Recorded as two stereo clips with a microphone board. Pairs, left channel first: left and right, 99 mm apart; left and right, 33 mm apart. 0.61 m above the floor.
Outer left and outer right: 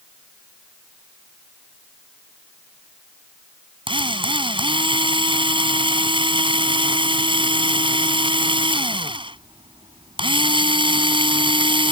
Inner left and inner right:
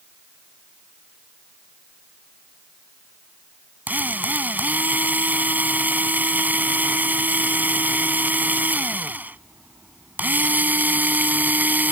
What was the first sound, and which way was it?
A drill, 60° right (ahead or behind).